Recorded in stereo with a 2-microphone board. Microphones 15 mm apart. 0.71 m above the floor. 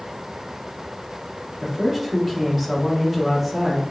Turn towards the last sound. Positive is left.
turn(degrees=-10)  # may be behind; listen again after turning